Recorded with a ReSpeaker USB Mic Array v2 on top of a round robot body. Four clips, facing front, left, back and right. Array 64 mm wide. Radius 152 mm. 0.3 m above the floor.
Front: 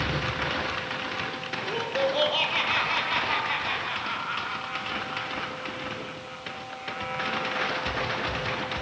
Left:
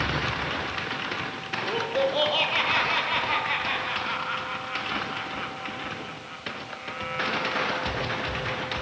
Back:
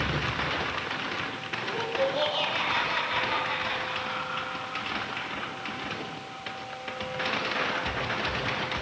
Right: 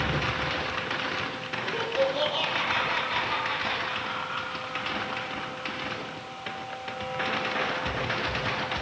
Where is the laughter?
60° left, 10 m.